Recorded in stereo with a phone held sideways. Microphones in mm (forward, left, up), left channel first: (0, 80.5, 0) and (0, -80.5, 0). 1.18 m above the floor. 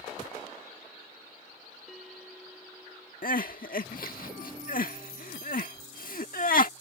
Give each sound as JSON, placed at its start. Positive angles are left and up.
{"t": 1.9, "sound": "a bell", "side_deg": 0}
{"t": 3.2, "sound": "crying", "side_deg": 65}